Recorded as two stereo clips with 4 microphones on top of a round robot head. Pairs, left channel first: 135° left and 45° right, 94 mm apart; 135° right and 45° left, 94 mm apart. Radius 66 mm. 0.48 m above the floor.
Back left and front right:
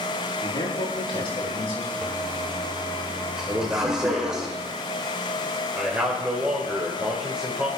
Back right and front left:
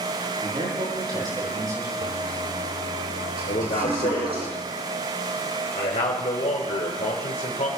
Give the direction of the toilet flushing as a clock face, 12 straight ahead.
11 o'clock.